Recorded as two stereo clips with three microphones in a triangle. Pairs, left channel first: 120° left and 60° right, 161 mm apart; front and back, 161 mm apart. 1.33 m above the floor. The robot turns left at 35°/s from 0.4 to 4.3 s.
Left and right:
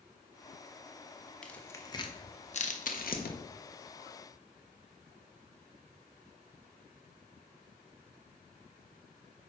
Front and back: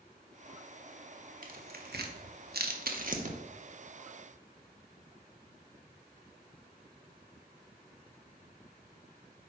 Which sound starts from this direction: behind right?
Tearing paper, at 1.4 s.